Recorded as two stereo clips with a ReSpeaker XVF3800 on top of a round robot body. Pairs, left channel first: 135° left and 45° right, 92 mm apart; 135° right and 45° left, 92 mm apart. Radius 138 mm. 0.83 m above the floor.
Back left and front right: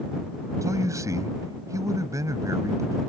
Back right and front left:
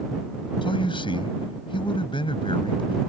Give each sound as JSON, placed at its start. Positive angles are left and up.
{"t": 0.6, "sound": "a man speaking", "azimuth_deg": -105}